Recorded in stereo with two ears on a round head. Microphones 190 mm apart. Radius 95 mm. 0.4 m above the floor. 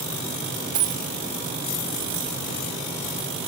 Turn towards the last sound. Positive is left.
turn(degrees=-25)  # may be behind; listen again after turning